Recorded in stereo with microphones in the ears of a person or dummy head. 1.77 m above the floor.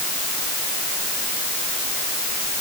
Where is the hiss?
No hiss in this recording.